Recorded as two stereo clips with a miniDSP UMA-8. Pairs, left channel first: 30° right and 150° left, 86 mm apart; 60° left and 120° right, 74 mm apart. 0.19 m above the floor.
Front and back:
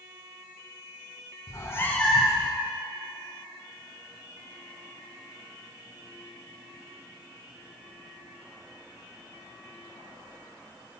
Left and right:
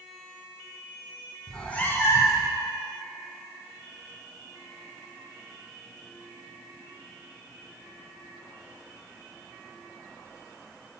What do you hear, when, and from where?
1.5 s a cat meowing: 20° right, 1.1 m; by 2.5 s 80° left, 1.1 m